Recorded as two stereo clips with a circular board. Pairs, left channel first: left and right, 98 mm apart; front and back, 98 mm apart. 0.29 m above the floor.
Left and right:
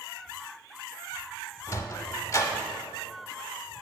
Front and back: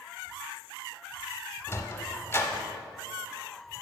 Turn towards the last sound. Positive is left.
turn(degrees=50)